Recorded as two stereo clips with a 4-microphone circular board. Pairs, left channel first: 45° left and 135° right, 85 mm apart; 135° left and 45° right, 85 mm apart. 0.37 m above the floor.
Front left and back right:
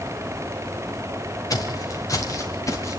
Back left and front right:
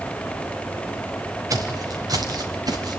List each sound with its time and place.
1.5 s footsteps: straight ahead, 4 m; by 3.0 s 5° right, 4.5 m